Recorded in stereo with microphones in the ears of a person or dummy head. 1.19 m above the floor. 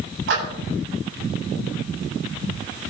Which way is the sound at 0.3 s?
75° right (ahead or behind).